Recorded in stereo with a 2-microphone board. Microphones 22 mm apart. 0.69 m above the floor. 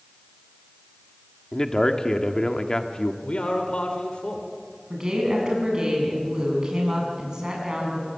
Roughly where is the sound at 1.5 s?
Left.